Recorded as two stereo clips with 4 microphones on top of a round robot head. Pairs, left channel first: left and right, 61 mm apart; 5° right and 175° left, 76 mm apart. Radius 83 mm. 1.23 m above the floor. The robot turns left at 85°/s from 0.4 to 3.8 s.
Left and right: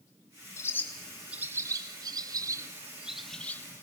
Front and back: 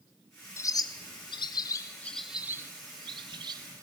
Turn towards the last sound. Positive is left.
turn(degrees=130)